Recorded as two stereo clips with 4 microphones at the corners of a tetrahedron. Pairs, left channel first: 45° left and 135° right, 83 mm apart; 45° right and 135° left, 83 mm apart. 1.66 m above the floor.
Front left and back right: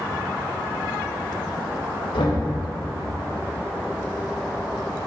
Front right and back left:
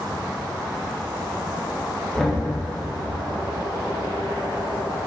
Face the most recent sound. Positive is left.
turn(degrees=40)